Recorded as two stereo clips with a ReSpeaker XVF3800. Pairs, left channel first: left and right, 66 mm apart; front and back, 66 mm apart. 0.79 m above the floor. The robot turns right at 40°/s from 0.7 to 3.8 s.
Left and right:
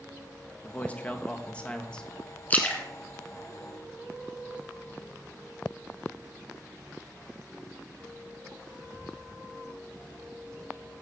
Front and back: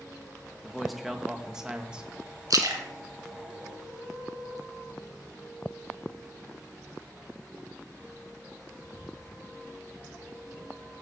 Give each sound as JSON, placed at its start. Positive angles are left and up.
{"t": 0.6, "sound": "a man speaking", "azimuth_deg": 85, "distance_m": 0.9}
{"t": 2.5, "sound": "a splash", "azimuth_deg": 150, "distance_m": 1.7}